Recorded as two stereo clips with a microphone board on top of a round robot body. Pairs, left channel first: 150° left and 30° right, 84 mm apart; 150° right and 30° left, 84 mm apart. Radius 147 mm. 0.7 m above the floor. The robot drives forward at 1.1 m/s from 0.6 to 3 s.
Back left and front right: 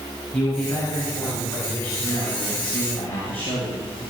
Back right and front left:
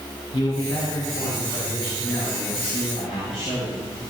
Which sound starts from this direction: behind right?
A man speaking, at 0.3 s.